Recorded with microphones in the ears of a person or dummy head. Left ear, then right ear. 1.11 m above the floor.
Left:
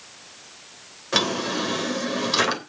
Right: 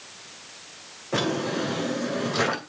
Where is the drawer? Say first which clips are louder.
Left 3 dB; 70° left (ahead or behind), 3 m.